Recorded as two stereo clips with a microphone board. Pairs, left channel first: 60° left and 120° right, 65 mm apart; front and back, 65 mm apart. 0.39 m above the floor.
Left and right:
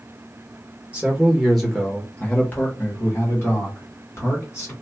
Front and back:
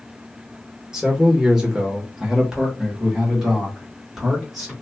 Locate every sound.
0.9 s a man speaking: 125° right, 0.9 m; by 4.7 s 90° left, 2.0 m